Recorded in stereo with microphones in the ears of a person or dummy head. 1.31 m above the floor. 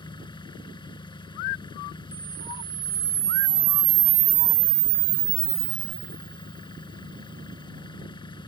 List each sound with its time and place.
0.0 s an engine running: 20° left (ahead or behind)
2.1 s a camera shutter: 40° right (ahead or behind)